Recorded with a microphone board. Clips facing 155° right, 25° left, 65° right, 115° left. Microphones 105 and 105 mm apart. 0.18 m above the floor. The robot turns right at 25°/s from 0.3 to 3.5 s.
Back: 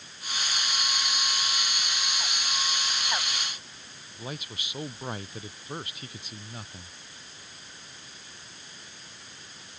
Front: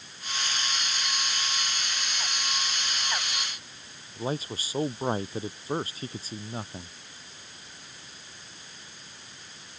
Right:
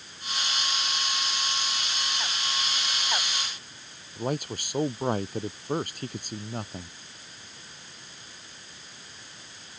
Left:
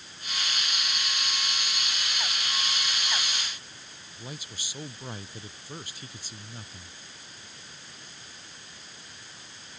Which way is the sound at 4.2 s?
35° right.